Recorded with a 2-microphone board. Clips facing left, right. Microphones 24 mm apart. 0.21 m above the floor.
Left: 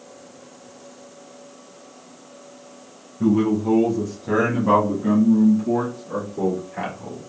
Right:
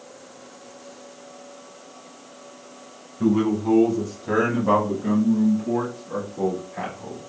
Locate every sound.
3.2 s a man speaking: 20° right (ahead or behind), 1.1 m; by 7.2 s 20° left (ahead or behind), 3 m